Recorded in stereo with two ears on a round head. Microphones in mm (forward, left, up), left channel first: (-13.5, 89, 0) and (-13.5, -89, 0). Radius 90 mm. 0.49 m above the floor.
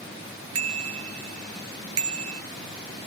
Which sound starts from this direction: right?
A bicycle bell, at 0.6 s.